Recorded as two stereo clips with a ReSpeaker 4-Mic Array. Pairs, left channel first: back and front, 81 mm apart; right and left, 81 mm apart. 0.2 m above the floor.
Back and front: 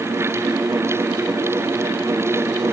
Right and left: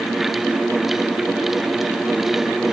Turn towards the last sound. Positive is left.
No sound to turn to.